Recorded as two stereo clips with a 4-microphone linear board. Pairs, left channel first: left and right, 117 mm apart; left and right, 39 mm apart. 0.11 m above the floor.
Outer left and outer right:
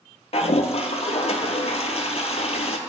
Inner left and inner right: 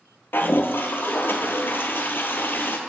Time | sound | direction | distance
0.3 | a toilet flushing | 65° left (ahead or behind) | 0.6 m